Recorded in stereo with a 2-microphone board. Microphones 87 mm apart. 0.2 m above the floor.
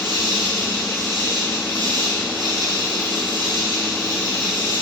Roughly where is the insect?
Right.